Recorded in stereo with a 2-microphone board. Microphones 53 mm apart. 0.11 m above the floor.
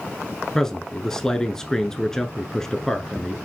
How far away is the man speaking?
About 1.1 m.